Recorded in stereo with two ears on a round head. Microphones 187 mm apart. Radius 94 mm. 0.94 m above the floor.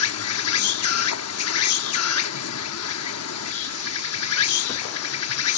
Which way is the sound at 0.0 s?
80° left.